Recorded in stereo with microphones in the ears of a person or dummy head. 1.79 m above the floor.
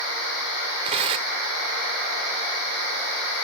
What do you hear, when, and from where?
0.8 s tearing paper: 25° right (ahead or behind)